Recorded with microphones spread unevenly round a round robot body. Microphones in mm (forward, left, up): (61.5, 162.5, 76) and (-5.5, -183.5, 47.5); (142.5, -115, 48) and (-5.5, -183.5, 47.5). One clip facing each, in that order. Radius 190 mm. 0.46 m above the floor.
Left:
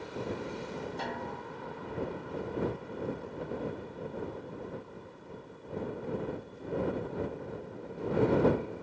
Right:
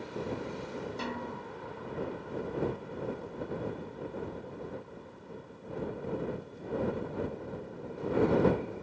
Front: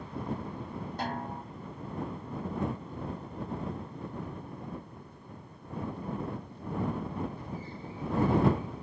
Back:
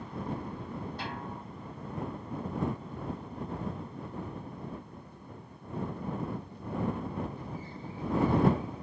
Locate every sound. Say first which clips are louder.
1.0 s a snare drum: right 1 dB, front 4 dB; 25° right